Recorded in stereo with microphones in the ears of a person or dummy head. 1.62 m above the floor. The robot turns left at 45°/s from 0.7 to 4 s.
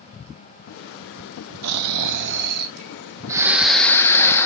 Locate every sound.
1.6 s snoring: 90° right, 0.5 m; by 4.5 s 165° left, 0.5 m